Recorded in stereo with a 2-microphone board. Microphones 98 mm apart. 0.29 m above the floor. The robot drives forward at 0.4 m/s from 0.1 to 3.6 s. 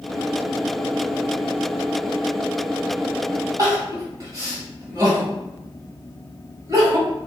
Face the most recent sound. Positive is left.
turn(degrees=-35)  # may be behind; listen again after turning